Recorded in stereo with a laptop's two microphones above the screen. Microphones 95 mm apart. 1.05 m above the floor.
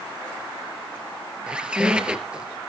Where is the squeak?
10° right (ahead or behind), 2.5 m.